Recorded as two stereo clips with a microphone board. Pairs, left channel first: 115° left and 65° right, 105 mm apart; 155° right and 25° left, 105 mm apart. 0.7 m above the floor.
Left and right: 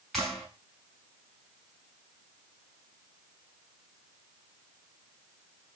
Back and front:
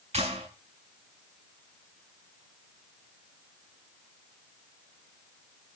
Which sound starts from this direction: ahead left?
A clap, at 0.1 s.